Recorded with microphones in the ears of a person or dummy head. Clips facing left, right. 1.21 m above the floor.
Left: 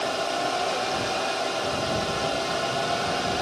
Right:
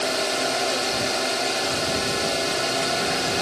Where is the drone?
25° right (ahead or behind).